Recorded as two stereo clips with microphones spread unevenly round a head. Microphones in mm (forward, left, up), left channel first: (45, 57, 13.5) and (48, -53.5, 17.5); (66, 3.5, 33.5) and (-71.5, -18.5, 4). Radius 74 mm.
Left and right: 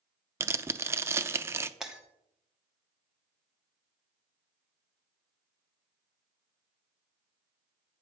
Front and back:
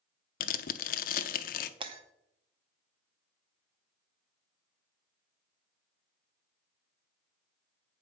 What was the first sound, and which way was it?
Tearing paper, 20° right.